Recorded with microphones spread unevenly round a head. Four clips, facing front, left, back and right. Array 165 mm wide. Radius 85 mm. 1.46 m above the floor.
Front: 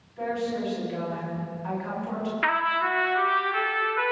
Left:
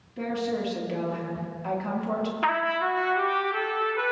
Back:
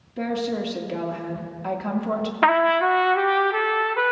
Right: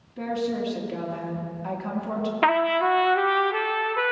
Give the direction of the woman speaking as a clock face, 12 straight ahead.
6 o'clock.